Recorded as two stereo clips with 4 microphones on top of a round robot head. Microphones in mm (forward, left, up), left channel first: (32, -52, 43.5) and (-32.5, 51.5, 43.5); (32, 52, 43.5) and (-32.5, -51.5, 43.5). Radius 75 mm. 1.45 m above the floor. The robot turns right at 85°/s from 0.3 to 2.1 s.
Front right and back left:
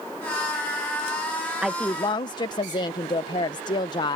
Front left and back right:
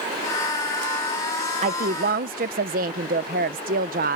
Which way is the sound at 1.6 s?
155° right.